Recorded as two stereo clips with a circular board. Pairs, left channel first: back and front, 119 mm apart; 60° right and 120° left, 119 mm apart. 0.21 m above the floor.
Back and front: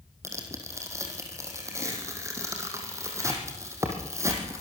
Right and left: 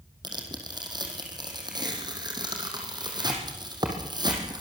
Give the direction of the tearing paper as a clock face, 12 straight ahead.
10 o'clock.